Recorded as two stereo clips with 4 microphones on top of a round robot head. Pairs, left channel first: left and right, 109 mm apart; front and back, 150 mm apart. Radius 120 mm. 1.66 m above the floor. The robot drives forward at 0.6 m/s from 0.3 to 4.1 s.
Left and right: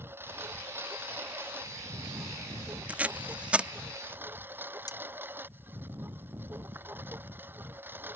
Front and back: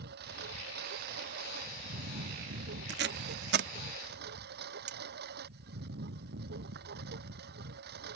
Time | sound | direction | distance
0.0 | a lawn mower | 160° right | ?
2.9 | tape being pulled | 165° right | ?
4.9 | cutlery clinking | 145° left | ?